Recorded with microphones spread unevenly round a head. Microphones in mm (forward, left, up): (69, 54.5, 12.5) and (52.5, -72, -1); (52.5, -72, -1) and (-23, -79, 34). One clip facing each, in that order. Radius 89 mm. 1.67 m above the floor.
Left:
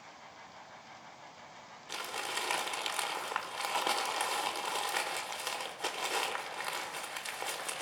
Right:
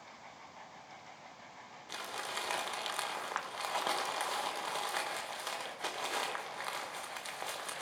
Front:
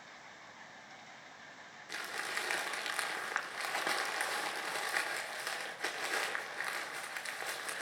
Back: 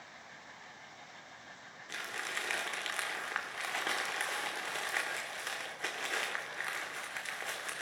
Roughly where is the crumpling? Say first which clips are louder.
Left 2 dB, even; behind left.